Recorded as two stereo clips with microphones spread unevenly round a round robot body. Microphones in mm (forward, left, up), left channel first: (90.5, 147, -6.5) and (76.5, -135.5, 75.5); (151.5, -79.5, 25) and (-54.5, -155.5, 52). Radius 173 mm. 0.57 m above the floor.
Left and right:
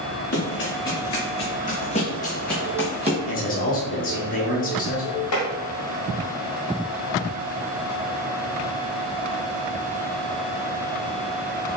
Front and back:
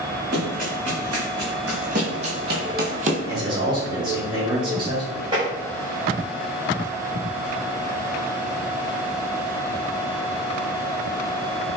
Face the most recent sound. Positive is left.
turn(degrees=125)